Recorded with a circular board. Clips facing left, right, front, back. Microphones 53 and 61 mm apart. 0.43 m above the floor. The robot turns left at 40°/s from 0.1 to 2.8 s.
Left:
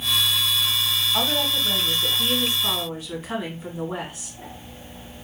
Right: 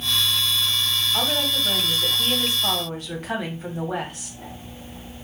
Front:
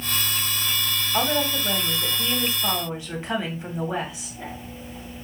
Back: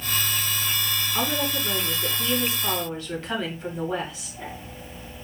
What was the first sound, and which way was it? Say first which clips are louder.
A woman speaking: left 1 dB, front 4 dB; 5° right.